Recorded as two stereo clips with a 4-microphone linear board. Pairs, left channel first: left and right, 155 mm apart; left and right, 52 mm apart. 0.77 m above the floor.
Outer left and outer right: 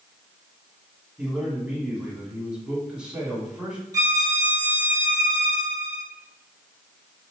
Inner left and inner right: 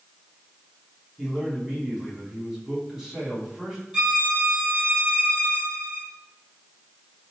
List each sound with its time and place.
1.2 s a man speaking: 5° right (ahead or behind), 2 m
3.9 s a violin: 20° right (ahead or behind), 1.1 m